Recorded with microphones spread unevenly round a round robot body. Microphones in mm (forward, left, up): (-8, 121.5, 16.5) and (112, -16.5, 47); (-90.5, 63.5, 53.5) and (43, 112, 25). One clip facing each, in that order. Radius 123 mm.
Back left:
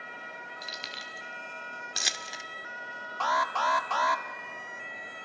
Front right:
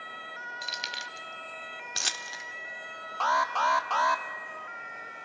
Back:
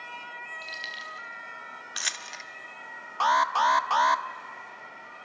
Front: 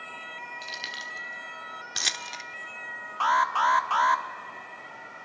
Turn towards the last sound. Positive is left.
turn(degrees=-170)